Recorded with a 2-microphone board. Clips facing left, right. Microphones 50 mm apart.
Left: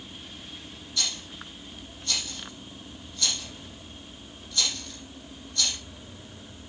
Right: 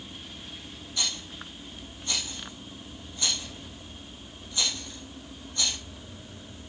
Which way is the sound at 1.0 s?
20° right (ahead or behind).